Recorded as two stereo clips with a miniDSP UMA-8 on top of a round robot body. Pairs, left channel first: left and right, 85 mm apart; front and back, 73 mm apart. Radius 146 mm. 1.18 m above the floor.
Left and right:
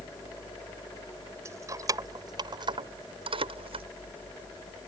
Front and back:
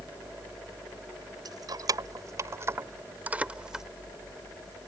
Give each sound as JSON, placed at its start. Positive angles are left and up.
{"t": 1.4, "sound": "keys jangling", "azimuth_deg": -145}